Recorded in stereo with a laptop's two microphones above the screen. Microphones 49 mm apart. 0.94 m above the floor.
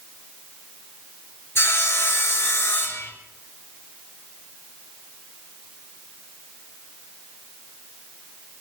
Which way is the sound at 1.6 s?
55° left (ahead or behind).